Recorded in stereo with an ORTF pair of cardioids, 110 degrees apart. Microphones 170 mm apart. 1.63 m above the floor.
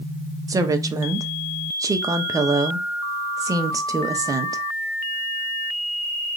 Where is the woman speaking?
20° right, 0.9 m.